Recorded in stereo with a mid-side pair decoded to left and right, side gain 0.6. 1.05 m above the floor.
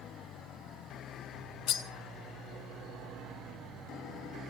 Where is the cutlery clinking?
60° left, 1.0 m.